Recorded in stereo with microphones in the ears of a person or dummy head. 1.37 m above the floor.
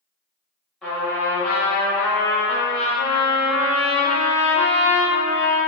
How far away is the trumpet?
About 0.8 m.